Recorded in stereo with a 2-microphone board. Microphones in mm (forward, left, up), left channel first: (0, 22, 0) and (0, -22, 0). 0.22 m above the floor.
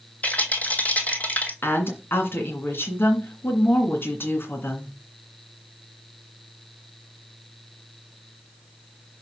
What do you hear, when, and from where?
0.2 s a rattle: 40° left (ahead or behind), 1.3 m
1.6 s a woman speaking: 55° left (ahead or behind), 2.5 m